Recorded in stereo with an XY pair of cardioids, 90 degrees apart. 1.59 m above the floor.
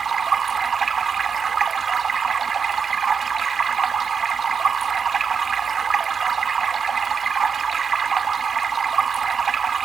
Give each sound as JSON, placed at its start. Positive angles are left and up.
{"t": 0.0, "sound": "running water", "azimuth_deg": -45}